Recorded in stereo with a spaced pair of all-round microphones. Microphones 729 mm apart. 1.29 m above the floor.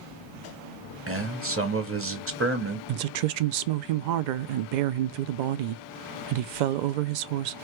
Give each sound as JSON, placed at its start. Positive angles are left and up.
{"t": 1.1, "sound": "a man speaking", "side_deg": -20, "distance_m": 0.5}
{"t": 2.9, "sound": "a woman speaking", "side_deg": -80, "distance_m": 0.5}